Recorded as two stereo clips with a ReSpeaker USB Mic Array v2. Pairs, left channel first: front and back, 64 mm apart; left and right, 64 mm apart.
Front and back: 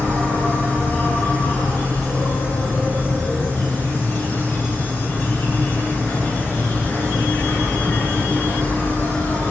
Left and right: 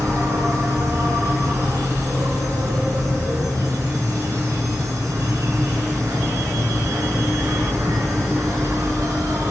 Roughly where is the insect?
Ahead right.